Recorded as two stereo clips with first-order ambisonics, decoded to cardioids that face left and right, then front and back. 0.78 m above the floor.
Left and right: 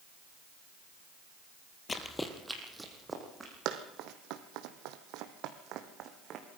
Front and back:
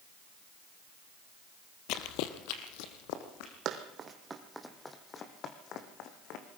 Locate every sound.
1.9 s running footsteps: 20° left, 1.4 m; by 3.5 s 15° right, 3.5 m
3.6 s running footsteps: 130° right, 1.9 m; by 6.5 s 35° right, 2.5 m